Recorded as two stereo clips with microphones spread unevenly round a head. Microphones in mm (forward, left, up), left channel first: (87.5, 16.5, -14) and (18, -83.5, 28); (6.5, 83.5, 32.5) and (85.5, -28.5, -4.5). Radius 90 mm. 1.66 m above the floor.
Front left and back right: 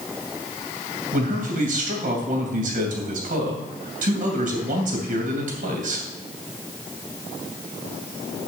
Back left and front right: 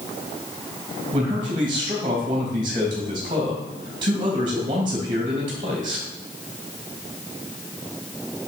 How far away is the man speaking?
About 3 m.